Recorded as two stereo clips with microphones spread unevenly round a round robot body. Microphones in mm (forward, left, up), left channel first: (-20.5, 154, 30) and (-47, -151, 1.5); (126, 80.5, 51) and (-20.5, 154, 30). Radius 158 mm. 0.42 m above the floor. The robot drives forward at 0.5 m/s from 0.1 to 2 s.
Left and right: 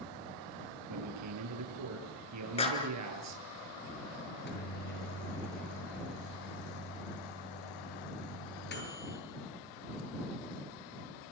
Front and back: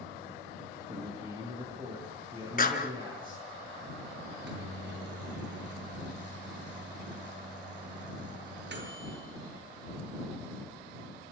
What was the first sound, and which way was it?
A man speaking, 130° right.